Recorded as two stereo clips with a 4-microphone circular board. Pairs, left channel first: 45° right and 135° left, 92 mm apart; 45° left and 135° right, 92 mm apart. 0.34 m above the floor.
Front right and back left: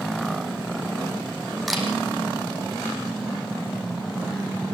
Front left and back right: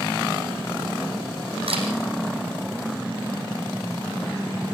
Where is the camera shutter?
135° right, 5 m.